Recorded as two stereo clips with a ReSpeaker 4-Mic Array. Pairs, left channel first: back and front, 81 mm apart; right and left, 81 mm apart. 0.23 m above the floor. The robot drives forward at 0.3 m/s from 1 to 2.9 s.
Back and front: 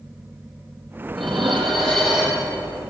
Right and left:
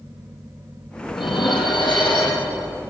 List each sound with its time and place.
1.1 s dishes clattering: 95° right, 6 m; by 2.5 s 100° right, 6 m